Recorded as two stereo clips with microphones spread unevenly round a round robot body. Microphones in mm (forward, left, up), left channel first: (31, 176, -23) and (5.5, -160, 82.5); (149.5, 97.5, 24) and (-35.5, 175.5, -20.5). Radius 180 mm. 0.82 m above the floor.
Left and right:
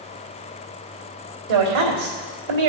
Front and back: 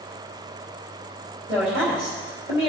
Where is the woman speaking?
100° right, 3 m.